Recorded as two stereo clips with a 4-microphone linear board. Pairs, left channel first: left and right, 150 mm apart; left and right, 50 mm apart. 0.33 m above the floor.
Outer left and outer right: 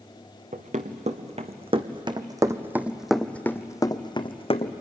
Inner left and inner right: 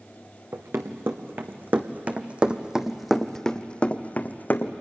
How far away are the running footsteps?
About 1.8 m.